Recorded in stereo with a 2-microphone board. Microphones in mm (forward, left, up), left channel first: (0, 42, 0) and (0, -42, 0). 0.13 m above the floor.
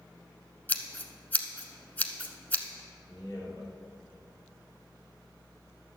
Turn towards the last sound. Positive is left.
turn(degrees=55)  # may be behind; listen again after turning